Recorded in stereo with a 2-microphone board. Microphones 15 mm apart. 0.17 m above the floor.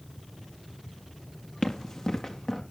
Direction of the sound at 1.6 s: 55° left (ahead or behind).